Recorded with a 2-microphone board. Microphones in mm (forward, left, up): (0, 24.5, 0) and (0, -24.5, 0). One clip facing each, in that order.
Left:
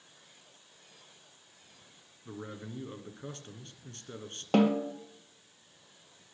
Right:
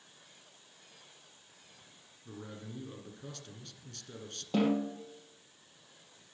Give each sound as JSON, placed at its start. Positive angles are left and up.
{"t": 2.2, "sound": "a man speaking", "side_deg": 35, "distance_m": 2.0}
{"t": 4.5, "sound": "a snare drum", "side_deg": 65, "distance_m": 3.0}